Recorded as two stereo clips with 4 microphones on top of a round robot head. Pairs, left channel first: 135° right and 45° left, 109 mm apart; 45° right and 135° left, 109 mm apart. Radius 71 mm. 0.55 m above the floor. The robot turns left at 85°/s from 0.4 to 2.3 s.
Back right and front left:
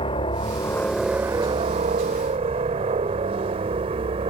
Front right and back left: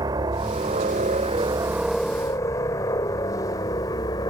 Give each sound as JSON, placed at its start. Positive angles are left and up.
{"t": 0.0, "sound": "a helicopter", "azimuth_deg": -170}